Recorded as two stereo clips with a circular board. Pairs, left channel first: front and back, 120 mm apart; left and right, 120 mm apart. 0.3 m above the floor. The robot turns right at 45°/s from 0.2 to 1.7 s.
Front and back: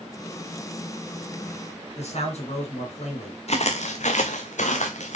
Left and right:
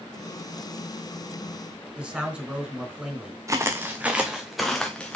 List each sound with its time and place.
2.0 s a man speaking: 10° right, 3.5 m
3.5 s footsteps: 25° right, 1.4 m; by 5.2 s 10° left, 1.9 m